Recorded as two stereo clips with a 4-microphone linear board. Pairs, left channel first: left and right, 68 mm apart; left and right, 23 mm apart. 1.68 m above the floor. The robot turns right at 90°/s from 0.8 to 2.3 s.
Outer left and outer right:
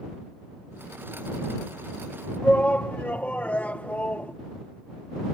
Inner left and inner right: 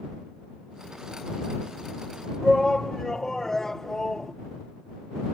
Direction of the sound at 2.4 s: 25° left (ahead or behind).